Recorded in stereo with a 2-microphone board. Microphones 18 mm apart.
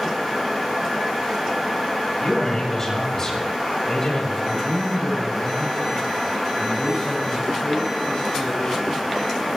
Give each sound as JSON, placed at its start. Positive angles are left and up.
{"t": 2.2, "sound": "a man speaking", "side_deg": 20, "distance_m": 7.5}
{"t": 4.4, "sound": "a man speaking", "side_deg": 60, "distance_m": 9.0}